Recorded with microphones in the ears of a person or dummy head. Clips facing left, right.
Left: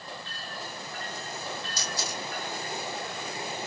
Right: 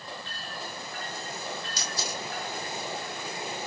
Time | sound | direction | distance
1.8 | a camera shutter | 55° right (ahead or behind) | 0.9 m